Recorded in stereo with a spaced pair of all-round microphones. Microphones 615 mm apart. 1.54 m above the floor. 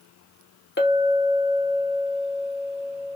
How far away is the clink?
About 0.7 m.